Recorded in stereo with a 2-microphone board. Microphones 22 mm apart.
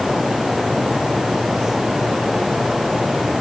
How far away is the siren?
I don't hear a siren.